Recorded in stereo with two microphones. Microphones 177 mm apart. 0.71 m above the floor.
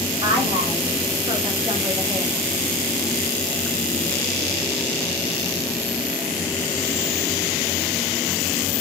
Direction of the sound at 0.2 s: 35° right (ahead or behind).